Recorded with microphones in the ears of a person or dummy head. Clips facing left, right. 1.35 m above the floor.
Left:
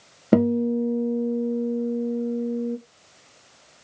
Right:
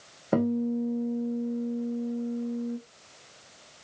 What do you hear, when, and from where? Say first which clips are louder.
0.3 s a guitar: left 6 dB; 40° left (ahead or behind), 1.0 m